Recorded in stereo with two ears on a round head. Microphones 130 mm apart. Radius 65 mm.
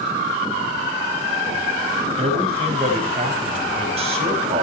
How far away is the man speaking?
About 5 m.